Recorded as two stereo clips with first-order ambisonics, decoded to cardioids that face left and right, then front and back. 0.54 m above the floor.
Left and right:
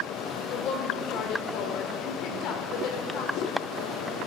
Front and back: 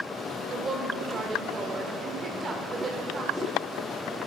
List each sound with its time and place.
0.5 s a woman speaking: 115° left, 1.7 m